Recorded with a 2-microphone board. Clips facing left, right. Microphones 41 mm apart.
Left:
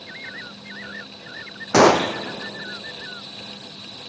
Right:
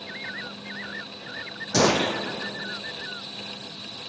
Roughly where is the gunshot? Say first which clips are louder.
Left 7 dB; left.